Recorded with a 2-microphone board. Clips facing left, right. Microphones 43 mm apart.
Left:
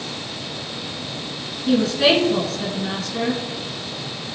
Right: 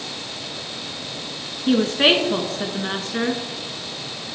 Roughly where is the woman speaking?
Right.